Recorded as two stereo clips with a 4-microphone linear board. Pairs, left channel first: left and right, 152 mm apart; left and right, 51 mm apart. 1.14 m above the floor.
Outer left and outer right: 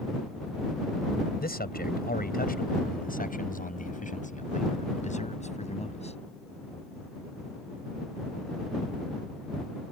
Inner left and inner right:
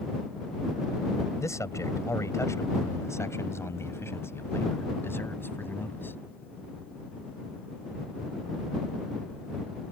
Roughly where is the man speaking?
Left.